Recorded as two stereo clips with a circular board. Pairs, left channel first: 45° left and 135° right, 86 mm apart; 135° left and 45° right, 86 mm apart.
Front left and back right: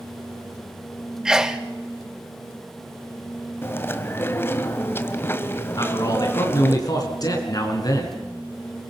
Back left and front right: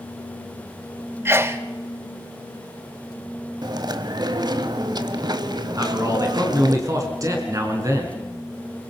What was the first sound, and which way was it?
A sneeze, 60° right.